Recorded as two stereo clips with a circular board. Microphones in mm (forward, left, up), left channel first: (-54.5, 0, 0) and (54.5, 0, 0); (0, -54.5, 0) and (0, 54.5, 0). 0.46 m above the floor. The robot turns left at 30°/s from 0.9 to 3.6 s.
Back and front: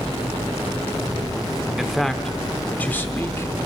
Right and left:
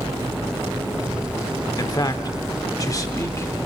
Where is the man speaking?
85° right, 0.9 m; by 3.7 s 140° right, 0.9 m.